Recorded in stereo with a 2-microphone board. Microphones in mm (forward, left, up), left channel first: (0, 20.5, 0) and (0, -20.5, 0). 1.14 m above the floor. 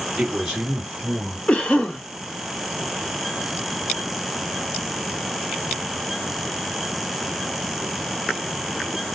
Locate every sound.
0.2 s a man speaking: 15° right (ahead or behind), 3 m
1.5 s a cough: 25° left (ahead or behind), 1.7 m